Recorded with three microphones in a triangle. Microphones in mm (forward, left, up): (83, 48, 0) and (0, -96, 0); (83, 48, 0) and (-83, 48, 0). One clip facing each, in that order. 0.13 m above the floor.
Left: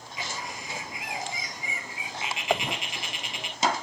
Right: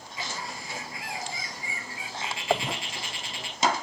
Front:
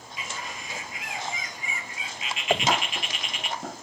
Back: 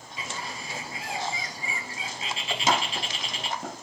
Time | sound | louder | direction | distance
0.2 | a bird | even, back 1 dB | 130° left | 1.6 m
2.5 | a dropped coin | right 1 dB, front 2 dB | 30° right | 0.6 m